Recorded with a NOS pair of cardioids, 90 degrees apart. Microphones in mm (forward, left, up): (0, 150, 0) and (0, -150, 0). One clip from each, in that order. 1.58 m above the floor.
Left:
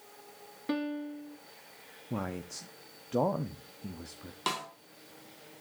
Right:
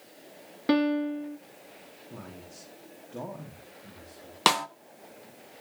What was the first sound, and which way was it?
A piano, 45° right.